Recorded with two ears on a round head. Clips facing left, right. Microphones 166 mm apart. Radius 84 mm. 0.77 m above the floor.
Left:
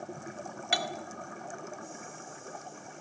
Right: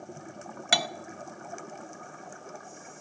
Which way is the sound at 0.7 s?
65° right (ahead or behind).